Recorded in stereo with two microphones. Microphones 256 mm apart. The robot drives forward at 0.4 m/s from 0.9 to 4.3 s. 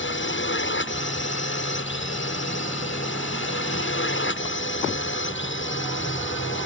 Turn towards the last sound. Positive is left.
turn(degrees=50)  # may be behind; listen again after turning